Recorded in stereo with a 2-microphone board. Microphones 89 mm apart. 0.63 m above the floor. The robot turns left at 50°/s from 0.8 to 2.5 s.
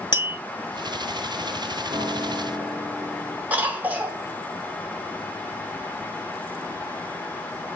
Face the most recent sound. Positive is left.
turn(degrees=-20)  # may be behind; listen again after turning